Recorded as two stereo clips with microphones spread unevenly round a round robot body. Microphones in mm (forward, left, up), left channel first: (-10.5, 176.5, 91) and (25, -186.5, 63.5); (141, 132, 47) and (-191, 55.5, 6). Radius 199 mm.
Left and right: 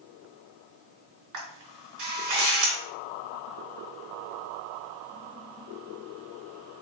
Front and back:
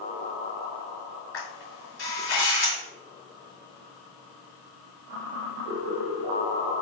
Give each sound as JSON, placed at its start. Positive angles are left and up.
{"t": 1.3, "sound": "a camera shutter", "azimuth_deg": -45, "distance_m": 4.0}